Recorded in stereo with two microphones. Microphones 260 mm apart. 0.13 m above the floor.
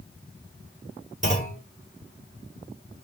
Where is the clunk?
30° right (ahead or behind), 2.5 m.